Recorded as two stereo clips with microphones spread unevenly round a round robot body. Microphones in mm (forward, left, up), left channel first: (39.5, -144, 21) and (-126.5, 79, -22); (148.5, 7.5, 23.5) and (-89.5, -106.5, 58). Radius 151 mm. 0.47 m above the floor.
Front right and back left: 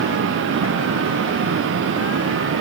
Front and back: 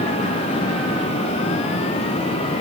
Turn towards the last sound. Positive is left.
No sound to turn to.